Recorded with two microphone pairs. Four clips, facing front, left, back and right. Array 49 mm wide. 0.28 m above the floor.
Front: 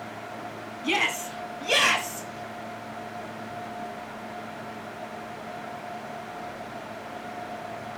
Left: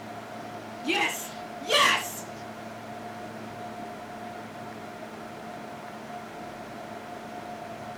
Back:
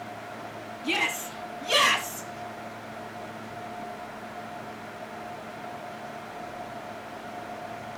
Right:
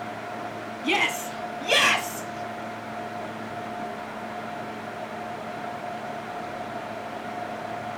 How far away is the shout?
About 7.5 m.